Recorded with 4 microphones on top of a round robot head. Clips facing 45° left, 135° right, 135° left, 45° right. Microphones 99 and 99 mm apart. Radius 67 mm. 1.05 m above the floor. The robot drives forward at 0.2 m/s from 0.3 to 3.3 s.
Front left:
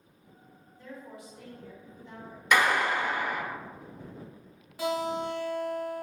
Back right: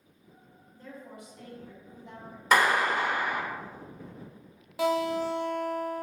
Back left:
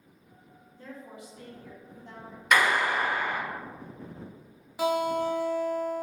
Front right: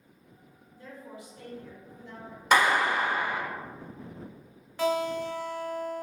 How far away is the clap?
About 0.6 m.